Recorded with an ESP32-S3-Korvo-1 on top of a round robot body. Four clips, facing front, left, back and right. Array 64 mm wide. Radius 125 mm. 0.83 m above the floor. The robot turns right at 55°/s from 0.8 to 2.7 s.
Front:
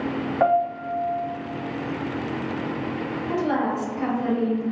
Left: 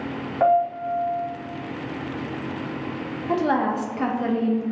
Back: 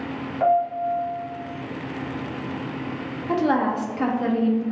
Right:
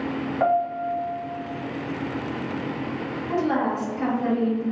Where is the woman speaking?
140° left, 0.7 m.